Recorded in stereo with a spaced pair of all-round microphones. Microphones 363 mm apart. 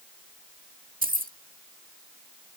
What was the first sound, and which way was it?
Keys jangling, 25° right (ahead or behind).